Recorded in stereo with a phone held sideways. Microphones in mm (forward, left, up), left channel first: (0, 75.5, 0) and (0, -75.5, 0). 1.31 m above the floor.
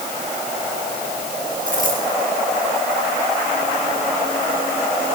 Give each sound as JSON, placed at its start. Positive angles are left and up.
{"t": 1.7, "sound": "a dropped coin", "side_deg": -60, "distance_m": 6.5}